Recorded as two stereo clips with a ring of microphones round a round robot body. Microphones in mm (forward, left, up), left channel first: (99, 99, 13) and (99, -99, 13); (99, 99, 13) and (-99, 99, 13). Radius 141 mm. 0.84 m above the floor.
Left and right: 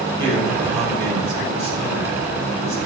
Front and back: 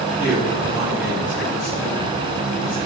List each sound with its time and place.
0.2 s a man speaking: 90° right, 5 m